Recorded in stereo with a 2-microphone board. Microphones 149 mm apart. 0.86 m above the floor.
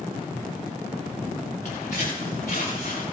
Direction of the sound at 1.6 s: 80° left.